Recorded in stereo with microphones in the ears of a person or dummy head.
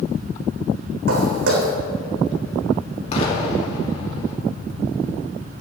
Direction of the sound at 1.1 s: 65° right (ahead or behind).